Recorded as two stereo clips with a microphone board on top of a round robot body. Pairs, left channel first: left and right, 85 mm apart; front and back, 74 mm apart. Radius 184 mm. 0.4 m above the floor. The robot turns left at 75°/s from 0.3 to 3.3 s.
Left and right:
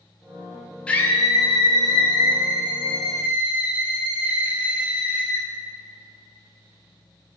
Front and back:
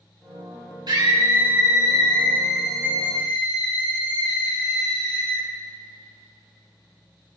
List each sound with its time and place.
0.9 s a scream: 165° left, 4.5 m; by 5.5 s 15° right, 4.5 m